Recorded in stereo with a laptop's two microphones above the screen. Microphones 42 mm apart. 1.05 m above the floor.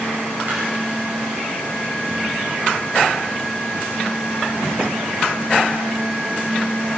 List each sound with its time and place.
0.5 s a clap: 45° right (ahead or behind), 6 m